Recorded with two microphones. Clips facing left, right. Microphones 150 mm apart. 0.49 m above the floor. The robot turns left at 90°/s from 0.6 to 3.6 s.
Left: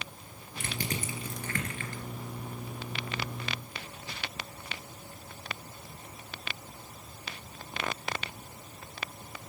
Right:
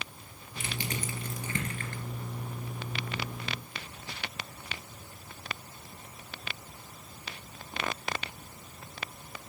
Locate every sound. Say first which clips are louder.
0.6 s crushing: left 1 dB; 65° left (ahead or behind), 2.5 m; by 2.0 s 65° right (ahead or behind), 2.5 m